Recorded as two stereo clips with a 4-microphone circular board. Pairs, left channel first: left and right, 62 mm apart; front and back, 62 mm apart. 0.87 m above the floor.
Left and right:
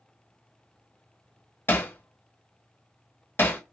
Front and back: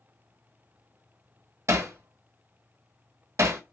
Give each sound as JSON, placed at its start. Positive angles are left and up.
{"t": 1.7, "sound": "hammering", "azimuth_deg": 145, "distance_m": 0.8}